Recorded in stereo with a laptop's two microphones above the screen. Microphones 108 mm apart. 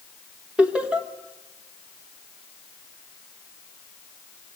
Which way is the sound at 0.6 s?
10° right (ahead or behind).